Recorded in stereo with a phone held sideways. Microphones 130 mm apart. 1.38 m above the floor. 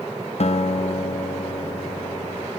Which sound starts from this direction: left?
A guitar, at 0.4 s.